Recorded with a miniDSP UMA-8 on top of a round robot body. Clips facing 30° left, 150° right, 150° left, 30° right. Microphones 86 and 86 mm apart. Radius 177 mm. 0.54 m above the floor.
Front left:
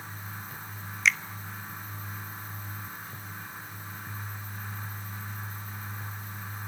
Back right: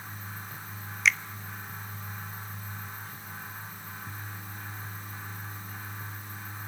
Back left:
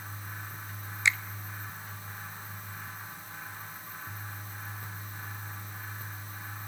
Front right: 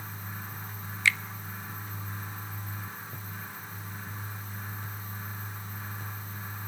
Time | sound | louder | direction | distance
1.1 | a finger snap | even, front right 1 dB | 120° left | 0.9 m